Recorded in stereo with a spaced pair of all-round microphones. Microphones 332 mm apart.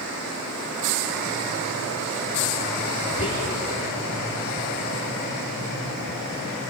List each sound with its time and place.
3.1 s whispering: 45° left (ahead or behind), 5 m